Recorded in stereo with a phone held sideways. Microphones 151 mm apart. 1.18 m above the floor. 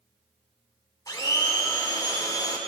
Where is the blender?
25° left (ahead or behind), 1.6 m.